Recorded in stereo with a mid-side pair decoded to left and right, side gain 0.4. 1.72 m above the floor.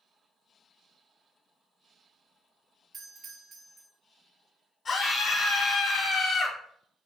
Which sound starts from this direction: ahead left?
A scream, at 4.8 s.